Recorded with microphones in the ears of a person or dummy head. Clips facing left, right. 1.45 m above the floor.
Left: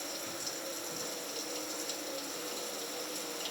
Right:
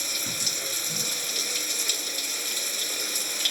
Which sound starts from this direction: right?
Running water, at 0.0 s.